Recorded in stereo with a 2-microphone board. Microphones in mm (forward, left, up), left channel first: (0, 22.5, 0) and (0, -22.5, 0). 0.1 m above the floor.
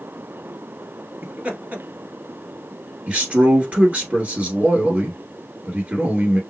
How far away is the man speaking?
About 1.5 m.